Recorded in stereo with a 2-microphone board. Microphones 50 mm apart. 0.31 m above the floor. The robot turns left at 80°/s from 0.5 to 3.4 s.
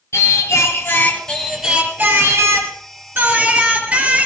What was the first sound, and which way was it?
Singing, 80° left.